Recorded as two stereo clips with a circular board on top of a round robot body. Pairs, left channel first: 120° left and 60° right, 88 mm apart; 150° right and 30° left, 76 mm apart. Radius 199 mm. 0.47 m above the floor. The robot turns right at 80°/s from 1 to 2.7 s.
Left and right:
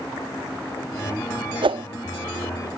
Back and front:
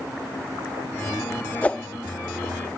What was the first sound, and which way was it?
A whoosh, 85° right.